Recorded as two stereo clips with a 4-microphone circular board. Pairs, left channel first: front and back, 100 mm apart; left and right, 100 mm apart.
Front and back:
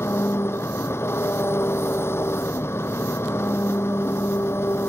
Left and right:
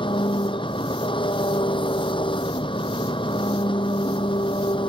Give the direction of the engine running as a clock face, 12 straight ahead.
10 o'clock.